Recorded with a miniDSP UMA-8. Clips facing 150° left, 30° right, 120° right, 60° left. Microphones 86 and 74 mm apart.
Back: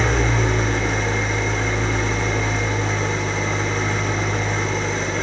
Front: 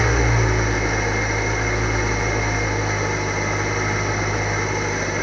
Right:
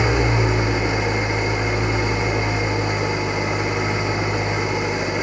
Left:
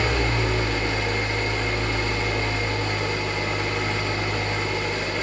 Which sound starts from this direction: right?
An engine running, at 0.0 s.